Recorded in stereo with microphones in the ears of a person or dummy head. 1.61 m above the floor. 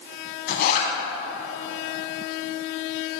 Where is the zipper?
55° left (ahead or behind), 5 m.